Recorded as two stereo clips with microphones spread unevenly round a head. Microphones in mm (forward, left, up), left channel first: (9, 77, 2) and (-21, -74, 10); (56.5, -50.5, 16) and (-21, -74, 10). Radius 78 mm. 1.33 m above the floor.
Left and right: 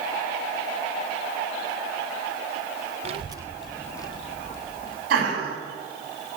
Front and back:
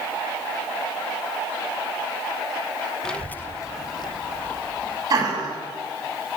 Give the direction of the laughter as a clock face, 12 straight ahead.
4 o'clock.